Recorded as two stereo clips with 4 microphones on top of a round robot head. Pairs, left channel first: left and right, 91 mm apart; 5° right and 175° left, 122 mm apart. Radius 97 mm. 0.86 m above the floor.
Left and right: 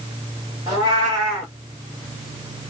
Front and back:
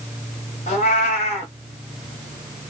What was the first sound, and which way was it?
A cat meowing, 25° right.